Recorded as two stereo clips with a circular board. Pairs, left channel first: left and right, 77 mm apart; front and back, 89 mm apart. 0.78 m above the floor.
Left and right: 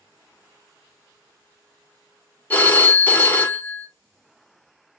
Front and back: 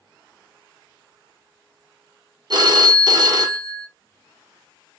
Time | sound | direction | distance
2.5 | a phone ringing | 155° left | 0.6 m